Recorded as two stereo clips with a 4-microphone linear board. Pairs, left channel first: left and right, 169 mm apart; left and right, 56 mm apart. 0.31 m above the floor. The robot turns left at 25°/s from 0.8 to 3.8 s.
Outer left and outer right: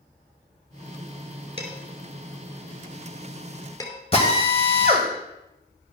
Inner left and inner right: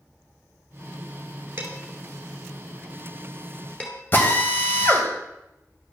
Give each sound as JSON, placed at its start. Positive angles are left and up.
{"t": 1.6, "sound": "dishes clattering", "side_deg": -35, "distance_m": 3.0}
{"t": 4.1, "sound": "a drill", "side_deg": 35, "distance_m": 1.9}